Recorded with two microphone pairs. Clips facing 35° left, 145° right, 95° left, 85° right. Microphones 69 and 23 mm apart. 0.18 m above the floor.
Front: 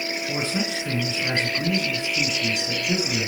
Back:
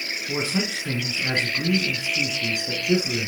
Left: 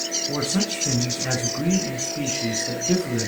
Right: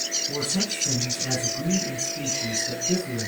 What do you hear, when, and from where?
0.3 s a man speaking: 130° left, 1.8 m